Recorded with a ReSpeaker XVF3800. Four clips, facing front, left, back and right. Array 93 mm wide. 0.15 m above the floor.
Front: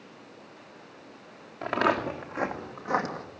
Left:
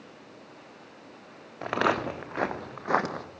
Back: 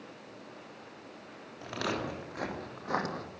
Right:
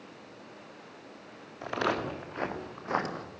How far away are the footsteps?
About 2.5 m.